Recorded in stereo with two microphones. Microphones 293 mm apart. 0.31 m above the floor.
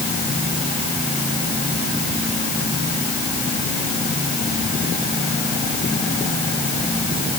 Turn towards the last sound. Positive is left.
No sound to turn to.